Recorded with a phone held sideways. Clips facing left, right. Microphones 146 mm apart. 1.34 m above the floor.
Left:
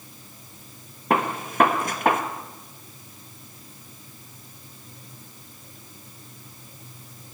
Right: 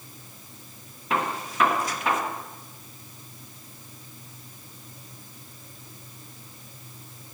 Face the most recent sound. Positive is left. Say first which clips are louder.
# left 4 dB
turn(degrees=55)  # may be behind; listen again after turning